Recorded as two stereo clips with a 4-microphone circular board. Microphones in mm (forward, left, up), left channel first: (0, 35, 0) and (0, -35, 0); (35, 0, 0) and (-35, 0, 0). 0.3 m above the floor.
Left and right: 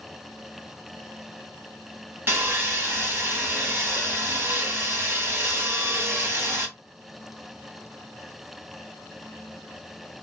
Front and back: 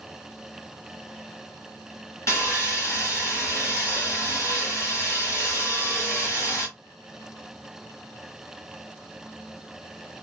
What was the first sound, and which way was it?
Sawing, 40° right.